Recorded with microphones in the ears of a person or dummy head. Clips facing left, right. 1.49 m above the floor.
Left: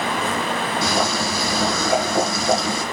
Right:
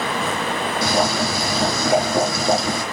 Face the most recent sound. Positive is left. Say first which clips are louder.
# right 4 dB
turn(degrees=-75)  # may be behind; listen again after turning